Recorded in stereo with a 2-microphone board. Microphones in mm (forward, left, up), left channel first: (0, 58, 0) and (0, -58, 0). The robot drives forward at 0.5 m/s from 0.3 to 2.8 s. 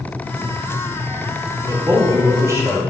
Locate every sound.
1.7 s a man speaking: 30° right (ahead or behind), 1.8 m; by 2.8 s 25° right (ahead or behind), 2 m